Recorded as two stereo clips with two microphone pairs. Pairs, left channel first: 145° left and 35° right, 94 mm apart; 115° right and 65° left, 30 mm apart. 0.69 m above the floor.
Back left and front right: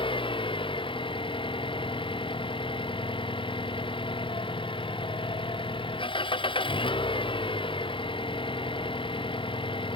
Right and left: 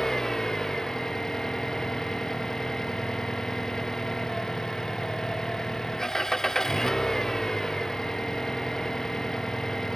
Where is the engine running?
175° left.